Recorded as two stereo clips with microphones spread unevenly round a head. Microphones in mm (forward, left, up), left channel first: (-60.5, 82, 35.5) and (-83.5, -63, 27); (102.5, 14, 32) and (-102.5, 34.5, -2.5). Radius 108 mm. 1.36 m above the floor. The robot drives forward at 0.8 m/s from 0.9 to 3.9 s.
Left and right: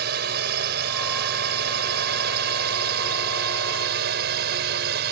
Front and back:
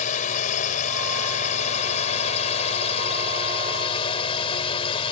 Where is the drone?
65° right; by 5.1 s 75° right.